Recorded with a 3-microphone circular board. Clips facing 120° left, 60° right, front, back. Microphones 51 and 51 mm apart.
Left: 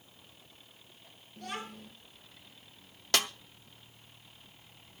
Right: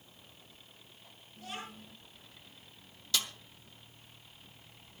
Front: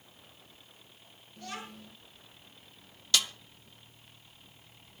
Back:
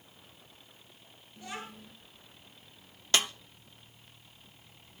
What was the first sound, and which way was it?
A child speaking, 110° left.